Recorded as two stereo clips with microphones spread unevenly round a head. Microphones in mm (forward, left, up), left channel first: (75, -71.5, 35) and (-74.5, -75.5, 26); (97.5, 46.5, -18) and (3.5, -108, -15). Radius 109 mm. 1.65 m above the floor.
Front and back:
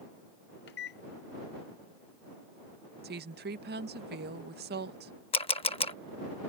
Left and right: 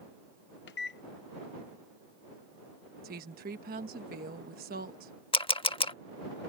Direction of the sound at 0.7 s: 35° left.